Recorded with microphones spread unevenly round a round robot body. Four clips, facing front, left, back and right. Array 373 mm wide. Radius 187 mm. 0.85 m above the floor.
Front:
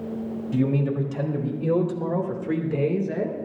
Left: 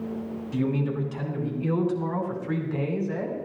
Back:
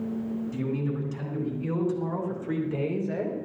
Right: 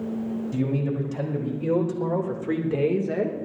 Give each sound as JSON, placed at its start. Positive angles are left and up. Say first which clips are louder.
{"t": 0.5, "sound": "a man speaking", "louder": "left 1 dB, front 10 dB", "azimuth_deg": -25, "distance_m": 3.5}